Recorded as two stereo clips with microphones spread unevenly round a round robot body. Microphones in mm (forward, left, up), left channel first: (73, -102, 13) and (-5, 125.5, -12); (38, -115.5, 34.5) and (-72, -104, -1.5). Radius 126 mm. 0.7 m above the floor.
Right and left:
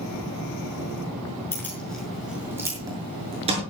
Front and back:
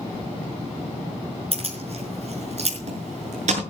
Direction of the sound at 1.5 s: 150° right.